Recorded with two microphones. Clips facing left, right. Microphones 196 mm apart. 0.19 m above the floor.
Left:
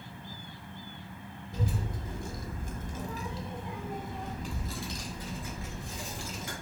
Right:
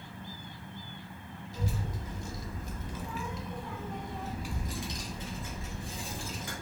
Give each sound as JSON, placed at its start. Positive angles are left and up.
{"t": 1.5, "sound": "a child speaking", "side_deg": 55, "distance_m": 1.8}